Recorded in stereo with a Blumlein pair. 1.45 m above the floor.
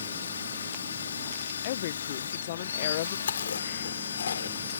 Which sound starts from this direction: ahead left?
A woman speaking, at 1.6 s.